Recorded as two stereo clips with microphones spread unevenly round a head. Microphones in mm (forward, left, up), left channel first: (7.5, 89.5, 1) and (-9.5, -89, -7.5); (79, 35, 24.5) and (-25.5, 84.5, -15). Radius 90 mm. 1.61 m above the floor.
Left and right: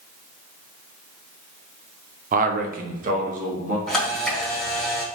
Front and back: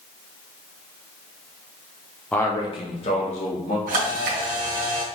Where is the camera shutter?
170° left, 1.8 m.